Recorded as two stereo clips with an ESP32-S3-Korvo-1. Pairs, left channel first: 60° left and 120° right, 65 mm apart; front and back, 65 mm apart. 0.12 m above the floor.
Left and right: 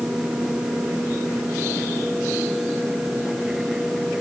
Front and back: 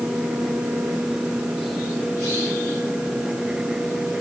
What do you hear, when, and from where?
Only background noise.